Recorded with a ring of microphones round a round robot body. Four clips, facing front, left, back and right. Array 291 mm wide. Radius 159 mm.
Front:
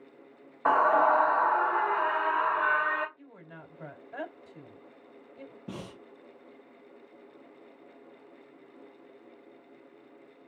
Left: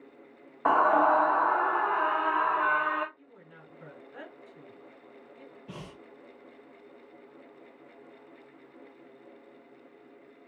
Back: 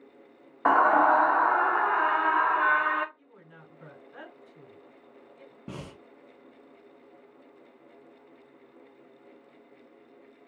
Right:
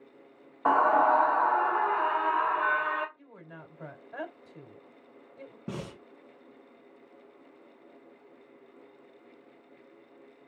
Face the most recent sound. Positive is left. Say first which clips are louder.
# right 7 dB, back 1 dB
turn(degrees=-115)